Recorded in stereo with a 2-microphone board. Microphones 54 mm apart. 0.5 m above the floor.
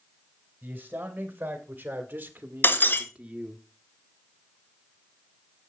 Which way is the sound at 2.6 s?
40° left (ahead or behind).